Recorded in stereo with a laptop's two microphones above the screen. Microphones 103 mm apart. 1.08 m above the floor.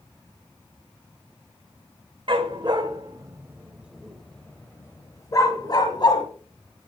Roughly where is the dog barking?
Right.